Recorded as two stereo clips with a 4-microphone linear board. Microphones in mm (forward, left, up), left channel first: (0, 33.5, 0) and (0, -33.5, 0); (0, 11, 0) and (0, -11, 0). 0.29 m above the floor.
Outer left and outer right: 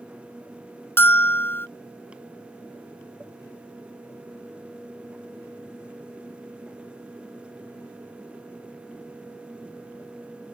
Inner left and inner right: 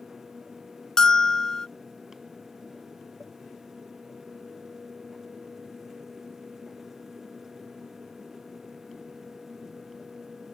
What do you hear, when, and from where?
1.0 s a bell: 35° left (ahead or behind)